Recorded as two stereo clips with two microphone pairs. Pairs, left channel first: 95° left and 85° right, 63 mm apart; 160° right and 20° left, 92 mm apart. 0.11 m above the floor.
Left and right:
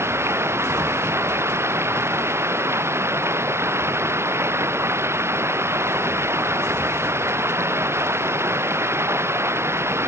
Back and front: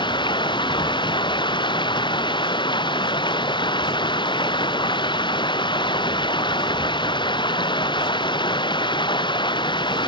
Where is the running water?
130° right.